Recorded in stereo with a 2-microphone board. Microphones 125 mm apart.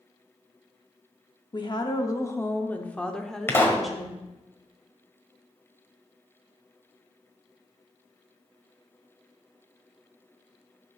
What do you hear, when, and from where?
1.5 s a woman speaking: 40° left (ahead or behind), 0.9 m; by 4.2 s 5° right (ahead or behind), 1.8 m
3.5 s a pop: 20° left (ahead or behind), 1.3 m